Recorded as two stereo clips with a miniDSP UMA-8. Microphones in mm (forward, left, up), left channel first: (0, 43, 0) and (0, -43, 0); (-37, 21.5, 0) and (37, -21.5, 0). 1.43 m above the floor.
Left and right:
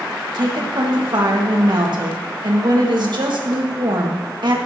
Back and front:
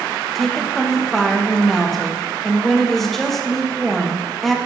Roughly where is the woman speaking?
Behind right.